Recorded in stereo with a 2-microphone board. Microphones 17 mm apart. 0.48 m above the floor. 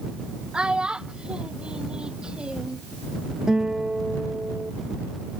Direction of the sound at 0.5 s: 75° right (ahead or behind).